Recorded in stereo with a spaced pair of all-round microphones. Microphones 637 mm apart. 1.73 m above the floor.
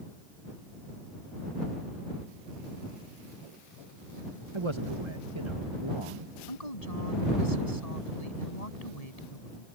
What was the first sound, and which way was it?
A man speaking, 45° right (ahead or behind).